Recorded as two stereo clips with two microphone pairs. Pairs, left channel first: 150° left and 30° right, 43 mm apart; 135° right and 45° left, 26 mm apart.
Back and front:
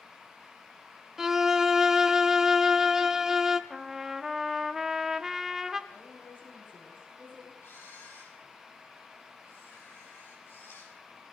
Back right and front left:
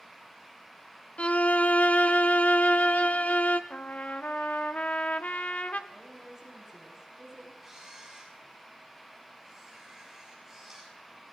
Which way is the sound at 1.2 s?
105° right.